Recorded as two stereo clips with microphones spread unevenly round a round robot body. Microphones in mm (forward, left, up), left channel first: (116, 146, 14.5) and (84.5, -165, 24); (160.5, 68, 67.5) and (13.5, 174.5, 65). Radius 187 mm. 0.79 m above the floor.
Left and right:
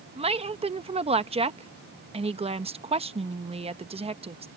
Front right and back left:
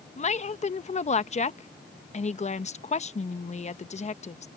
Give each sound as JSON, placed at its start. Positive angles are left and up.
{"t": 0.2, "sound": "a woman speaking", "azimuth_deg": -35}